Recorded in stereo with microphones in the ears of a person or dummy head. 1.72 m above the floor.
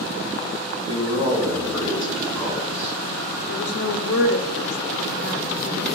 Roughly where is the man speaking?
Left.